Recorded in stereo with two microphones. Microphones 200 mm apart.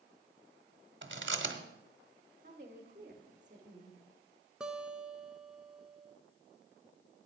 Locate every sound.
1.0 s chewing: 60° right (ahead or behind), 1.1 m
2.4 s a woman speaking: 35° right (ahead or behind), 1.4 m
4.6 s a guitar: 5° right (ahead or behind), 0.8 m